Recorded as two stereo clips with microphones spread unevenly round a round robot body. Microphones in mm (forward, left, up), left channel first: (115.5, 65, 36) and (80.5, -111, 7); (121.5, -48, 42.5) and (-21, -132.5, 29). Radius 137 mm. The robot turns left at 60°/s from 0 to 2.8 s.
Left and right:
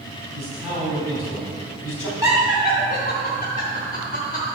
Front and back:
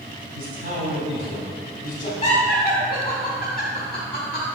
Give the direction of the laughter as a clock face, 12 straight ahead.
9 o'clock.